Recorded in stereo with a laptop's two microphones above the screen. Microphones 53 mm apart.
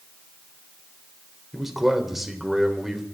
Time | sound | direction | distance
1.5 | a man speaking | 5° right (ahead or behind) | 3 m